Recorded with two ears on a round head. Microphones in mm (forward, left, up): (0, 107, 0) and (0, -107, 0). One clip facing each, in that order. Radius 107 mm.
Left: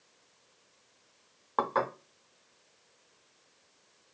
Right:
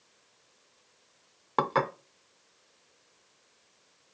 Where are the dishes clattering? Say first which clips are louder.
Right 2 dB; 40° right (ahead or behind), 0.5 m.